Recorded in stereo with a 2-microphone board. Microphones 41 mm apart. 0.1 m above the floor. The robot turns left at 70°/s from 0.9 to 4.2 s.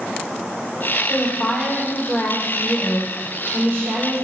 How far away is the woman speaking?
About 4 m.